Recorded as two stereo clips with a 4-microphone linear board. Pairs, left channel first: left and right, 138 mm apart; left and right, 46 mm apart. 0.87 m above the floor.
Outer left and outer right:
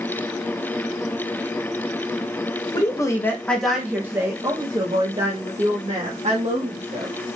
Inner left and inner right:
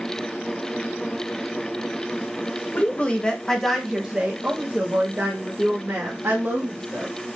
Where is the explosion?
I don't hear an explosion.